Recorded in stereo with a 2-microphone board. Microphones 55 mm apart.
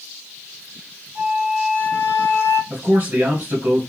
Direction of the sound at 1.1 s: 55° right (ahead or behind).